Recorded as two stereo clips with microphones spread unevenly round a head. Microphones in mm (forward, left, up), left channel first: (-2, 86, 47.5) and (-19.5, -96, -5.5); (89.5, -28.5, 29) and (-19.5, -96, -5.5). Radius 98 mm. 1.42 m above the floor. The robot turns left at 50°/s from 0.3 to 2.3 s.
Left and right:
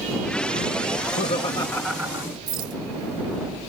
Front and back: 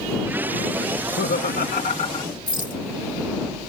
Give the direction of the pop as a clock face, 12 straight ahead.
No pop in this recording.